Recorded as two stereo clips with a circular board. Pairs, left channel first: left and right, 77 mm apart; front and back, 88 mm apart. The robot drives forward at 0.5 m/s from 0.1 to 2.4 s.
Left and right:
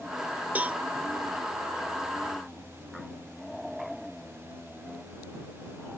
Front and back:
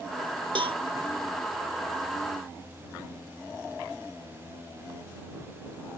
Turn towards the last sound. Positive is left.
turn(degrees=-170)